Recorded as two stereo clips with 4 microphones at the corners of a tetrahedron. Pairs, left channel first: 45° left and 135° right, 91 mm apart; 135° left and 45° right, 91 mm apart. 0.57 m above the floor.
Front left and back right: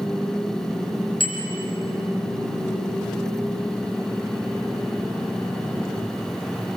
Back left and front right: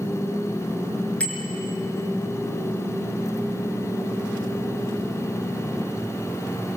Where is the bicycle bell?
60° left, 5 m.